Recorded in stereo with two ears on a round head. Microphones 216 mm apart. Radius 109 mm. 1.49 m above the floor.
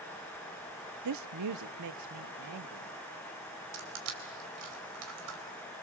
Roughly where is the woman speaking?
Right.